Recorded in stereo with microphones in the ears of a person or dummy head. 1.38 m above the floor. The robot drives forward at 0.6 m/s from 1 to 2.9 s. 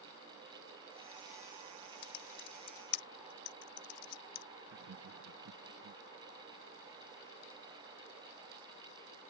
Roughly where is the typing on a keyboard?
Left.